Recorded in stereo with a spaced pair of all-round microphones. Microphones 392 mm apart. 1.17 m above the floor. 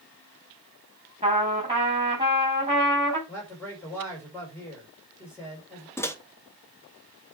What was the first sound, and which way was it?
A trumpet, 15° right (ahead or behind).